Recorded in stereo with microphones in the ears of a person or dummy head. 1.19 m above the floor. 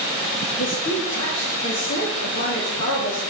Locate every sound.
0.6 s a woman speaking: 60° left (ahead or behind), 2.5 m